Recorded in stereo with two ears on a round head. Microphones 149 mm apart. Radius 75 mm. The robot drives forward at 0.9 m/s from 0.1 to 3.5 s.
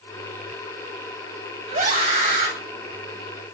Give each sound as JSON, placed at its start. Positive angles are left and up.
{"t": 1.7, "sound": "a scream", "side_deg": -45, "distance_m": 8.0}